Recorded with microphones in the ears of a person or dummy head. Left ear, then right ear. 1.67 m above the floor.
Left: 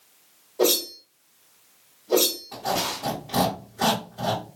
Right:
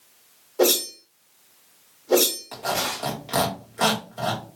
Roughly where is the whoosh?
Right.